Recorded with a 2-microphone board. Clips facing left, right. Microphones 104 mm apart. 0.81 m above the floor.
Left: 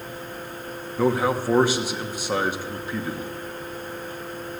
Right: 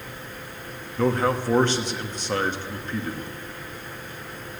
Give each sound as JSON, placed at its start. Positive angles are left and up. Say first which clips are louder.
{"t": 1.0, "sound": "a man speaking", "louder": "left 1 dB", "side_deg": 10, "distance_m": 1.1}